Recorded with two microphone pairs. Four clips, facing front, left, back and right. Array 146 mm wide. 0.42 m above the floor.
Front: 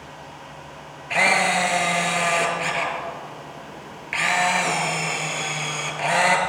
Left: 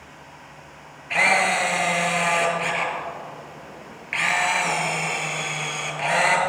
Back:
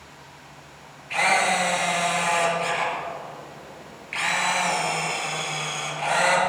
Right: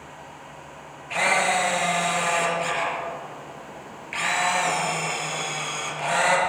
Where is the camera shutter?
5° left, 5 m.